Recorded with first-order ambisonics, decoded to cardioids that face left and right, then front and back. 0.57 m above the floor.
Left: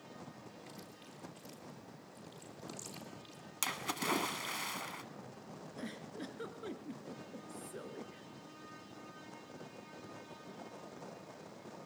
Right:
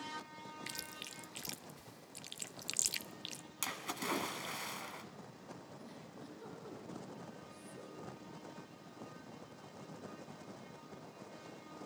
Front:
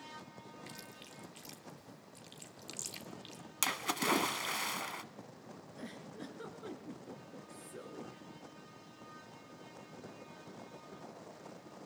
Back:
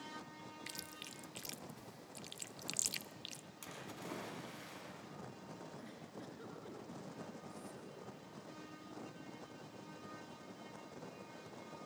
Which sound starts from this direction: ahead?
A splash, at 3.6 s.